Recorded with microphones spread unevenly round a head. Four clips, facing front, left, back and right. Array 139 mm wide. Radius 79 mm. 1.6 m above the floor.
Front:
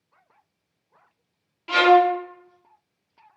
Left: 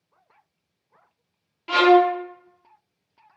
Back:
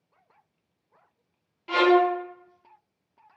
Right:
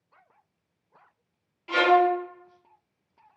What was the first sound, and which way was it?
A violin, 50° left.